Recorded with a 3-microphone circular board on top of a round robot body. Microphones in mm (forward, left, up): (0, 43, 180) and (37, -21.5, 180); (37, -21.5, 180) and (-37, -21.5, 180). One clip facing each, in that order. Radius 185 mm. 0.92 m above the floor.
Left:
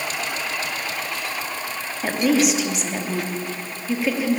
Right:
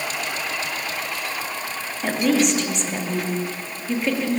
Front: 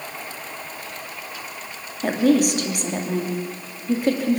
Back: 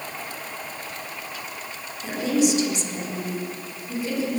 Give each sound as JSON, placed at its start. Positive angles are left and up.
{"t": 2.0, "sound": "a woman speaking", "azimuth_deg": 35, "distance_m": 3.0}